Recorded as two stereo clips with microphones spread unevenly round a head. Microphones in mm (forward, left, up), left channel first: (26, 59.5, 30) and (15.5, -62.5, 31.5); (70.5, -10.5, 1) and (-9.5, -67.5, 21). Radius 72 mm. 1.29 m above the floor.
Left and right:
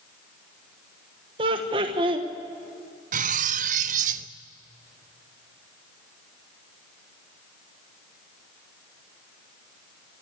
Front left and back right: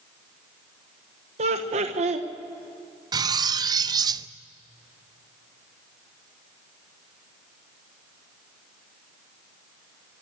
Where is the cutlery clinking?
120° right, 0.6 m.